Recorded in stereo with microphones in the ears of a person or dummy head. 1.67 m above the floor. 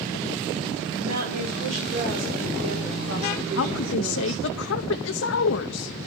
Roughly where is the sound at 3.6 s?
Left.